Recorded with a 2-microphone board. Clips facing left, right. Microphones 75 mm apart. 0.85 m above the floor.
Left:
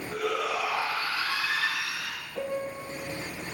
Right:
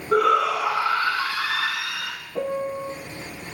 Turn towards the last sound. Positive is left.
turn(degrees=-45)  # may be behind; listen again after turning